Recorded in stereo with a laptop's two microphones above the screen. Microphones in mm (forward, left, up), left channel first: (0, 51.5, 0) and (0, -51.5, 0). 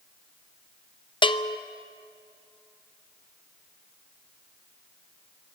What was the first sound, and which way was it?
A bell, 50° left (ahead or behind).